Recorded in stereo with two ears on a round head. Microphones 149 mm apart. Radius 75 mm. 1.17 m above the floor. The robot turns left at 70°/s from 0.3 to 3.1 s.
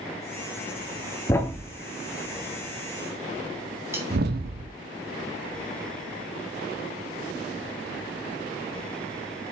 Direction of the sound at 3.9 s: 15° right (ahead or behind).